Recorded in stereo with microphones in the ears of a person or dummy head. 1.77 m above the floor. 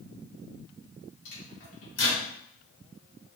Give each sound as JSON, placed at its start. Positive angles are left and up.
{"t": 1.2, "sound": "a microwave", "side_deg": 55, "distance_m": 1.8}